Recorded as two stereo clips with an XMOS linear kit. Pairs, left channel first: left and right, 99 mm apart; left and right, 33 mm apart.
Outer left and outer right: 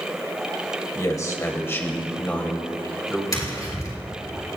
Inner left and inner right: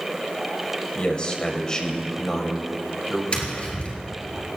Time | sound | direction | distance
0.9 | a man speaking | 35° left (ahead or behind) | 1.8 m
3.3 | tapping | 35° left (ahead or behind) | 3 m